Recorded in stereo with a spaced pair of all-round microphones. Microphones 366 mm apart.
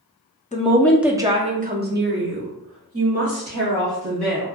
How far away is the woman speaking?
About 0.5 m.